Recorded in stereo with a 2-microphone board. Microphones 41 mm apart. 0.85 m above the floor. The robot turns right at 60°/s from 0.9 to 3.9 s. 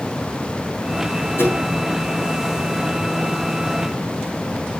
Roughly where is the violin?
I don't hear a violin.